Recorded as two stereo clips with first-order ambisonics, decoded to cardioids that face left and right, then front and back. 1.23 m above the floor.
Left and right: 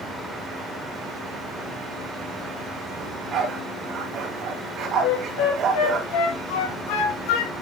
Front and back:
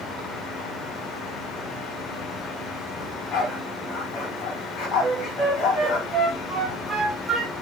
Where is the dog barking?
45° right, 2.5 m.